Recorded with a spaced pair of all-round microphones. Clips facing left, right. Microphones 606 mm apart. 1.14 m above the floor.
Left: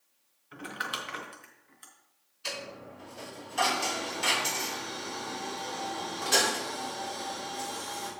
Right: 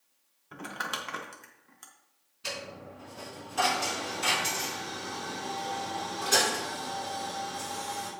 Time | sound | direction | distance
0.5 | crumpling | 75° right (ahead or behind) | 1.1 m
2.4 | a dropped coin | 80° right | 4.5 m